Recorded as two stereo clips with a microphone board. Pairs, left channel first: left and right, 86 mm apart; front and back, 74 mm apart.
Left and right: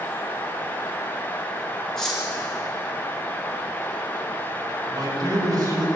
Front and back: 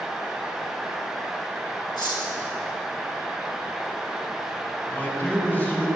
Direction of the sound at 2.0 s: 5° left.